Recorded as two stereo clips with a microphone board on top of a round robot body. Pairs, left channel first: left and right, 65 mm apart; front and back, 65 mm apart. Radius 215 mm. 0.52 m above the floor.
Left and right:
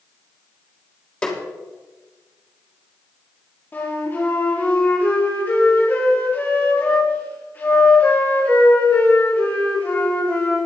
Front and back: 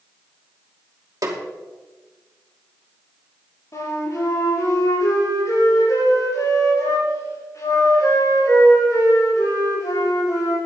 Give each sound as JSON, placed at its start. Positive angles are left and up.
{"t": 1.2, "sound": "a snare drum", "azimuth_deg": 160, "distance_m": 2.5}
{"t": 3.7, "sound": "a flute", "azimuth_deg": 30, "distance_m": 5.5}